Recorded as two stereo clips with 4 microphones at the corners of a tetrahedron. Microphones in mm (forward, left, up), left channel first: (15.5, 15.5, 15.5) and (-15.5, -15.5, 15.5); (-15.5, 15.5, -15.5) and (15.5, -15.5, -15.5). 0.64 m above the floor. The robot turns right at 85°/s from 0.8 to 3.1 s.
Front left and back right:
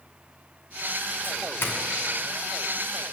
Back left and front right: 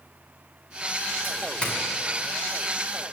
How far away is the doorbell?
About 2.5 m.